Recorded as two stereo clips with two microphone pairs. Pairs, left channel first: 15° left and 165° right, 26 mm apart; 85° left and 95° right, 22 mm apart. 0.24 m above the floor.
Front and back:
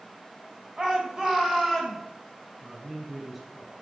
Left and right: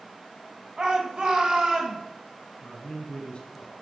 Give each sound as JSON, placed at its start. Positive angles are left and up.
{"t": 0.8, "sound": "a shout", "azimuth_deg": -120, "distance_m": 1.7}
{"t": 2.6, "sound": "a man speaking", "azimuth_deg": 115, "distance_m": 3.0}